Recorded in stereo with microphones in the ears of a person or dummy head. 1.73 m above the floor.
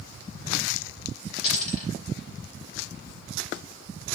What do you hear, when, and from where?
1.4 s a dropped coin: 50° left (ahead or behind), 2.5 m